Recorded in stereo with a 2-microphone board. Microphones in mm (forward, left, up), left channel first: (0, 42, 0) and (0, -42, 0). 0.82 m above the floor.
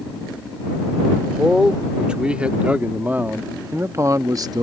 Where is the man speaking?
5° right (ahead or behind); by 4.6 s 50° right (ahead or behind).